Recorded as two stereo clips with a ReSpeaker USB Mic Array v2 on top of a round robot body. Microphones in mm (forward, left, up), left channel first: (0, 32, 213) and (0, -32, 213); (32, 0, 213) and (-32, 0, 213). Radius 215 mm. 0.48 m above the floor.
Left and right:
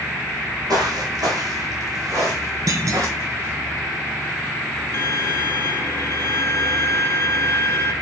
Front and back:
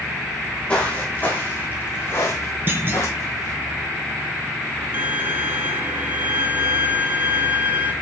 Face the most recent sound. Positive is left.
turn(degrees=135)